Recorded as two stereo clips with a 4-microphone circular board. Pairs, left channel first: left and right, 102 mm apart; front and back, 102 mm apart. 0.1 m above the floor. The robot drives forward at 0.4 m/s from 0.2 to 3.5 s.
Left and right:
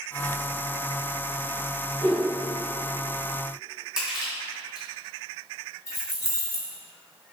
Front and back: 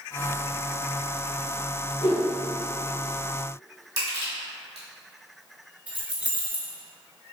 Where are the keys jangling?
115° left, 1.0 m.